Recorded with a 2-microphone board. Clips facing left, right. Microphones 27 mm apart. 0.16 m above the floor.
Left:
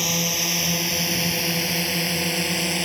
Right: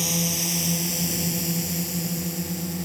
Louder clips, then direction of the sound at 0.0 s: Left 3 dB; 25° left (ahead or behind).